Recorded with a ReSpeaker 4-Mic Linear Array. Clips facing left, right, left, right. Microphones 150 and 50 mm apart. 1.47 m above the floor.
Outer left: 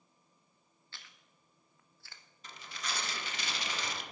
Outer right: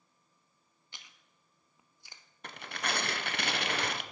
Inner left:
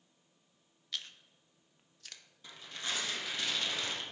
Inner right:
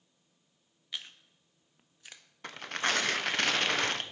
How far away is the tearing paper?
About 0.7 m.